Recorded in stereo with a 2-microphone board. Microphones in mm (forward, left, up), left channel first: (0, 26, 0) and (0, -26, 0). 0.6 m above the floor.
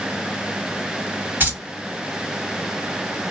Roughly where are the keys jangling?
Right.